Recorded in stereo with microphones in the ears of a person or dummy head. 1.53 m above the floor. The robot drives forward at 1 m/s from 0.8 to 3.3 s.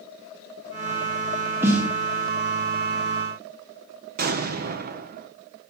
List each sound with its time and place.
1.6 s a snare drum: 10° right (ahead or behind), 1.4 m; by 1.9 s 5° right (ahead or behind), 1.6 m
4.2 s an explosion: 45° right (ahead or behind), 0.7 m